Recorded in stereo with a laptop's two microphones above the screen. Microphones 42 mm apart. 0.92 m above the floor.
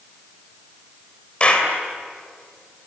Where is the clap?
25° left (ahead or behind), 3 m.